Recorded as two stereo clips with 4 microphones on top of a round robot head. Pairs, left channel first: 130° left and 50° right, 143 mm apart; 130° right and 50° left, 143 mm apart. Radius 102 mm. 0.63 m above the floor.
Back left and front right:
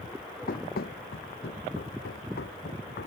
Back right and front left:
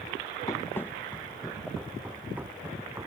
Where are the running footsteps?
160° left; by 3.1 s 120° left.